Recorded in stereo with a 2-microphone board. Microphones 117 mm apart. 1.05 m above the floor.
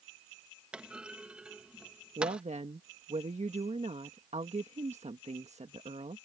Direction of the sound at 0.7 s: 10° right (ahead or behind).